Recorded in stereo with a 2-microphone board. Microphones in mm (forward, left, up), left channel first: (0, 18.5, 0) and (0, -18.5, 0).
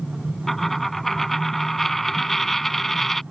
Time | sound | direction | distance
0.5 | a dropped coin | 10° left (ahead or behind) | ?